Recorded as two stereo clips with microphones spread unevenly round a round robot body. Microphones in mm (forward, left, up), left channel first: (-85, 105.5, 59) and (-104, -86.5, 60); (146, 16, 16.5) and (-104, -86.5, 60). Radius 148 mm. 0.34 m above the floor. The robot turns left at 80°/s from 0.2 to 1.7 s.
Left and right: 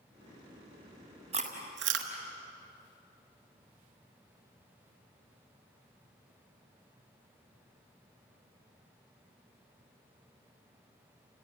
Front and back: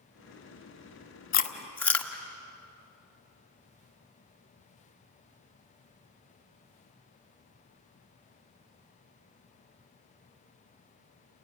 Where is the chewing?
30° right, 1.4 m; by 2.1 s 60° right, 1.4 m.